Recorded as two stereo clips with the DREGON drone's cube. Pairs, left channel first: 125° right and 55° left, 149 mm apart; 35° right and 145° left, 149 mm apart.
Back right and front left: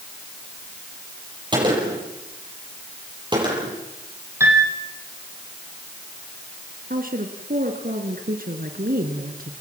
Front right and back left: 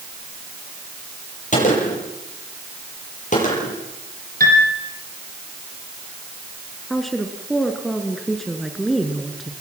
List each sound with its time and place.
1.5 s a gunshot: 5° right, 9 m
4.4 s a piano: 130° left, 6 m
6.9 s a woman speaking: 55° left, 3.5 m